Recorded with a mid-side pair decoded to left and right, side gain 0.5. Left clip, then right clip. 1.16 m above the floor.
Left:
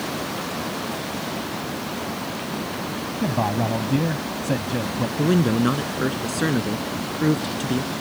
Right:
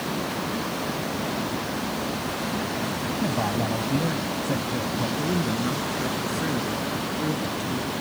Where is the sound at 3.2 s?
30° left.